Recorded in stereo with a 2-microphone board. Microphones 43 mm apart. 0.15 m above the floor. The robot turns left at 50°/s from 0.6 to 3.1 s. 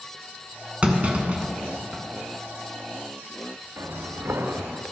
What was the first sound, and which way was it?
A clunk, 30° right (ahead or behind).